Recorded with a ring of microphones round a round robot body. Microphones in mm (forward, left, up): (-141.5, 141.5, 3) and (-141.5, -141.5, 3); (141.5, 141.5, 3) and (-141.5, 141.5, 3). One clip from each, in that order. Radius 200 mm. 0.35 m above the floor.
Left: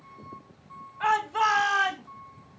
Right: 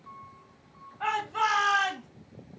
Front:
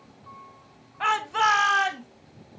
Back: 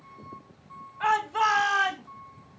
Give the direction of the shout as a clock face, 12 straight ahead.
11 o'clock.